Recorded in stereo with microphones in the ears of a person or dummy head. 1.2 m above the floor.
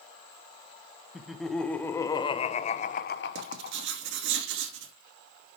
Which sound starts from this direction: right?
Writing, at 3.4 s.